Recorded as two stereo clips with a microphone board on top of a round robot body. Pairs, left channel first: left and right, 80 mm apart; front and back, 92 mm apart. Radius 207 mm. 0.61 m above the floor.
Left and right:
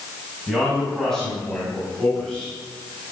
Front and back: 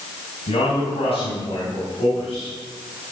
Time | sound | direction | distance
0.5 | a man speaking | 5° left | 5.5 m